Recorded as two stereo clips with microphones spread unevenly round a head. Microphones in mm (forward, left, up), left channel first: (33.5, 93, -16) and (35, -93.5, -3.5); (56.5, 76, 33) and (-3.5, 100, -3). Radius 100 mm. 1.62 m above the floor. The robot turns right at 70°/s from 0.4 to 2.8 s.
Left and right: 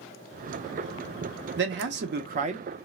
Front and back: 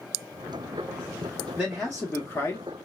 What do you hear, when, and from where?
1.6 s a man speaking: 105° right, 0.7 m; by 2.7 s 30° right, 0.7 m